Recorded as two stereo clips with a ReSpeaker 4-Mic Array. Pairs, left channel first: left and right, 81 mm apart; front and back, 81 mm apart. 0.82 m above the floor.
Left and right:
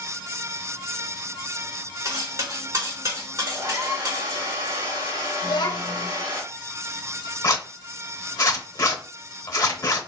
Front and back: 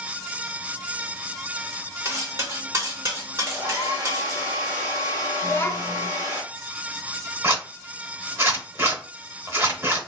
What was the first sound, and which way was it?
Cutlery clinking, 135° right.